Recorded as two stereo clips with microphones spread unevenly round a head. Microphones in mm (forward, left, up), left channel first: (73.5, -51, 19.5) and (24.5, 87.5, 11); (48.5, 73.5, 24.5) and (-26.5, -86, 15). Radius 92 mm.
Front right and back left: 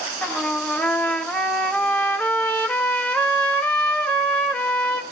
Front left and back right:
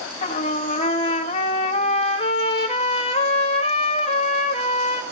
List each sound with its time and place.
0.2 s a trumpet: 10° left, 2.5 m